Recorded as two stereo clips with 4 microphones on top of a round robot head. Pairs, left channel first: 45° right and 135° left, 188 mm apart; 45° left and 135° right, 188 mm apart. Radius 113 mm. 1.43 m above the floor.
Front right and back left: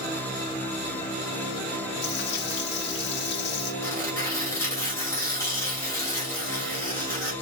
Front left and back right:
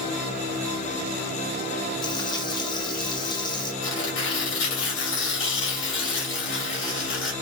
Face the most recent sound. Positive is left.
turn(degrees=30)